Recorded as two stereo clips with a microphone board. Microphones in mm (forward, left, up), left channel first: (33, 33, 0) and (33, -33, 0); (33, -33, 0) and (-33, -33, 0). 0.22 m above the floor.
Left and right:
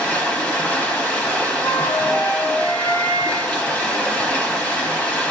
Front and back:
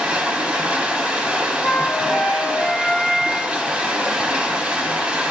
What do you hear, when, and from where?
0.0 s running water: 135° left, 1.2 m
1.6 s a flute: 85° left, 1.8 m